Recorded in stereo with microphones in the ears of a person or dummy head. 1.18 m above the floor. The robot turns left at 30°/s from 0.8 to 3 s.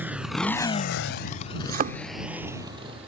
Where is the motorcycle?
10° right (ahead or behind); by 3.1 s 30° right (ahead or behind).